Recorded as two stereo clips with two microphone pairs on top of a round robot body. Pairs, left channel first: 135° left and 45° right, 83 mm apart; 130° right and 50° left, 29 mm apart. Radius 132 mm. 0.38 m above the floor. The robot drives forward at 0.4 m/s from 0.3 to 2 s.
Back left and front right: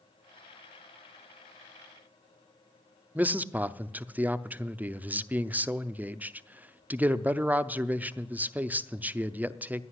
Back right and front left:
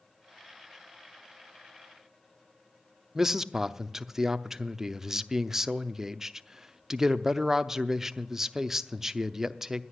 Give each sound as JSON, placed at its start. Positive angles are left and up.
{"t": 3.1, "sound": "a man speaking", "azimuth_deg": 0, "distance_m": 0.9}